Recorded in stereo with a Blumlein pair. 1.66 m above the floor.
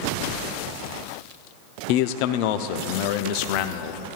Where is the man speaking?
45° left, 0.6 m.